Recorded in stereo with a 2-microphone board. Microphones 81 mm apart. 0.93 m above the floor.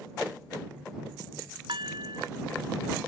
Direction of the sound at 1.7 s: 75° right (ahead or behind).